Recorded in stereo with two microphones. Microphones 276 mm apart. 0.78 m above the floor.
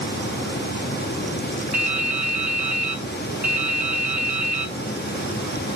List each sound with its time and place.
1.7 s dripping: 85° right, 4.5 m